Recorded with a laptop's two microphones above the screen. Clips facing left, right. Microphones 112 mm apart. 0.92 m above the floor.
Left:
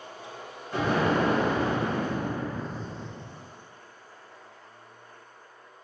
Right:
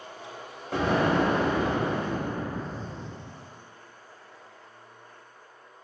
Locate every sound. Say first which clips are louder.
0.7 s an explosion: right 1 dB; 80° right, 0.8 m